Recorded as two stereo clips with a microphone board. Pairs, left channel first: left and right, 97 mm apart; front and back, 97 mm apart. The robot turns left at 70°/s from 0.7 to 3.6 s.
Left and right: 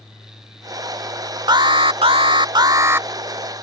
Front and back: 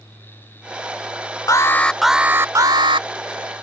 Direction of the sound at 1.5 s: 50° right.